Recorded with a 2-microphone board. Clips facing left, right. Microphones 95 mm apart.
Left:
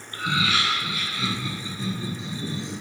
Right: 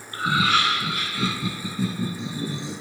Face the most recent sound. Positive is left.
turn(degrees=-75)  # may be behind; listen again after turning